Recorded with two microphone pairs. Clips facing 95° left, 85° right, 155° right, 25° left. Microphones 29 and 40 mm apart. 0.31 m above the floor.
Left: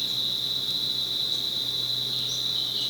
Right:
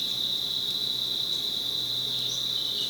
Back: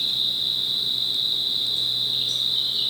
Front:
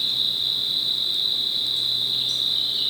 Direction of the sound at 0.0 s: 115° left.